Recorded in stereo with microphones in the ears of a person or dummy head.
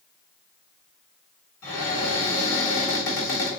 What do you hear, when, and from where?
1.6 s a cupboard door: 60° left (ahead or behind), 1.6 m